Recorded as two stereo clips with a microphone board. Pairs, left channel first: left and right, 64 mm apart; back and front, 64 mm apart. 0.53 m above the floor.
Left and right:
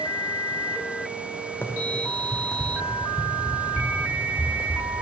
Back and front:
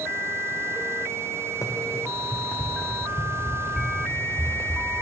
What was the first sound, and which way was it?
Running footsteps, 145° left.